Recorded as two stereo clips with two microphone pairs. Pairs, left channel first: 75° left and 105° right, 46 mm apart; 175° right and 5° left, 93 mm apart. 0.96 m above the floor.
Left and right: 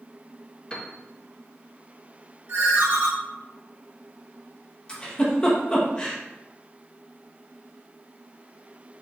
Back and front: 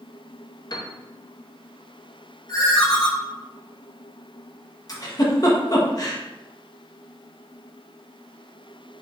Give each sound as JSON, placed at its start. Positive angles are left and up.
{"t": 0.7, "sound": "a piano", "azimuth_deg": 145, "distance_m": 0.6}
{"t": 2.5, "sound": "a ringtone", "azimuth_deg": -125, "distance_m": 1.4}
{"t": 4.9, "sound": "a giggle", "azimuth_deg": 140, "distance_m": 1.0}